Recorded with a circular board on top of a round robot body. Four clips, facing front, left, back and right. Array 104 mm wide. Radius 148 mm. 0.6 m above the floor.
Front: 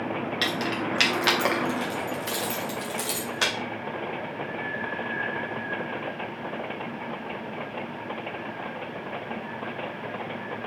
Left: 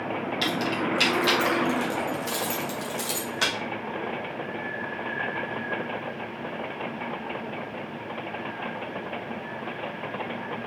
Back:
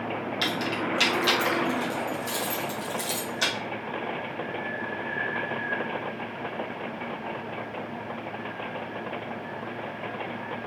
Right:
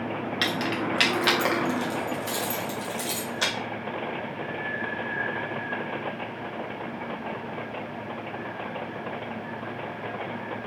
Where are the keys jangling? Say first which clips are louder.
Even, back 1 dB; 60° right, 1.5 m; by 3.5 s 30° left, 2.0 m.